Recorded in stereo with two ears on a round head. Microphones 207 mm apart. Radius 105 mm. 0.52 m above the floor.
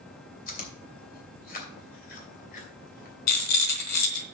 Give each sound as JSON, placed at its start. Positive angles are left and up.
{"t": 0.5, "sound": "chewing", "side_deg": 40, "distance_m": 2.5}
{"t": 3.3, "sound": "a rattle", "side_deg": 80, "distance_m": 1.4}